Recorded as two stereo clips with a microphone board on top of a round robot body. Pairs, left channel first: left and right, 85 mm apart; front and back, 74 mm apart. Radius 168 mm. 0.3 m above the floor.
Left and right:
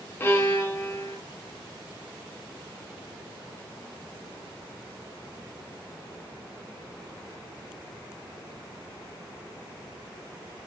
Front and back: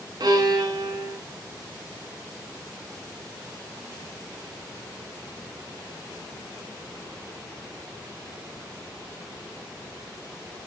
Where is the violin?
155° left, 3 m.